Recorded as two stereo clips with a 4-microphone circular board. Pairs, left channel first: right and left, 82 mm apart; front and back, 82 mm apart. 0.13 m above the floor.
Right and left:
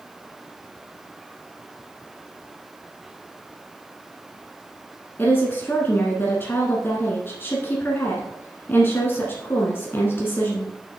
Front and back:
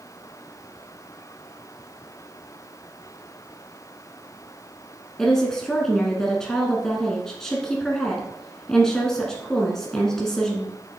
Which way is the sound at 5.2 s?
75° right.